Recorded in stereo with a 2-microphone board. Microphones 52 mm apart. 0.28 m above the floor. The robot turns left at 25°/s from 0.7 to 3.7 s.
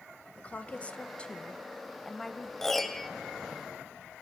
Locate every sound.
0.4 s a woman speaking: 55° left, 1.1 m; by 2.5 s 10° left, 1.1 m
2.6 s a piano: 5° left (ahead or behind), 1.3 m; by 3.1 s centre (ahead or behind), 1.3 m